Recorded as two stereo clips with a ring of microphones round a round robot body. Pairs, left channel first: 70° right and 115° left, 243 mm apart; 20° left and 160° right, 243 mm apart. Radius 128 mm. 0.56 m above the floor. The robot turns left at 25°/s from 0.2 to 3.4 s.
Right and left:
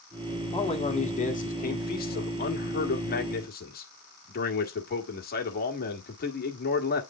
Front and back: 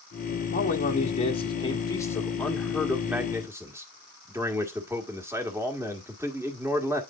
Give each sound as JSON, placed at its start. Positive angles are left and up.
{"t": 0.5, "sound": "a man speaking", "azimuth_deg": -10, "distance_m": 1.5}